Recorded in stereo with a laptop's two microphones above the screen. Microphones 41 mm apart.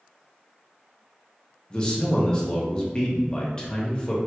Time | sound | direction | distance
1.7 | a man speaking | 25° left (ahead or behind) | 0.7 m